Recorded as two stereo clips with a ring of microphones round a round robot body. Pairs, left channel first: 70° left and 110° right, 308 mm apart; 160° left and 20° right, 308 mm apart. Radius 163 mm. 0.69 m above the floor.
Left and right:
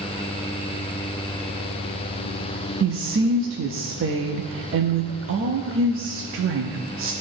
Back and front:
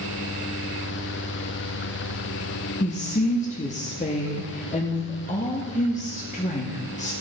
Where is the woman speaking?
145° right, 0.7 m.